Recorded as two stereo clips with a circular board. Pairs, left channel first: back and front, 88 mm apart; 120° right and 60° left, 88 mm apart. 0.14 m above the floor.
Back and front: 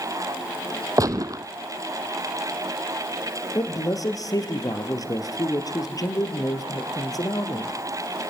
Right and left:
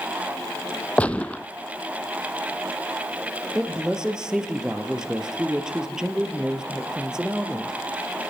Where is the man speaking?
140° left, 3 m.